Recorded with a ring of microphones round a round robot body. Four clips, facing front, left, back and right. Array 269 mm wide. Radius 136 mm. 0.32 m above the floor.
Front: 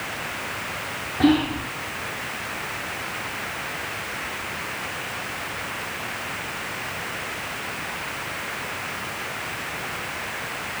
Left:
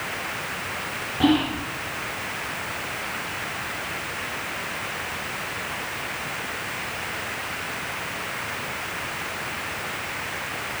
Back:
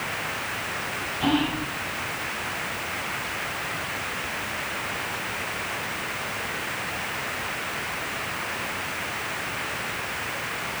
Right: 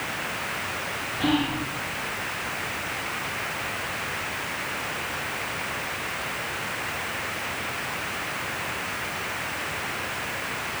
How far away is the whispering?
About 4.5 m.